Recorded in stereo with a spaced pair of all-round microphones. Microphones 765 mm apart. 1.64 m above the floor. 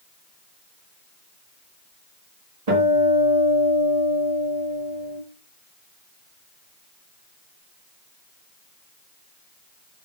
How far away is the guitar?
About 1.5 m.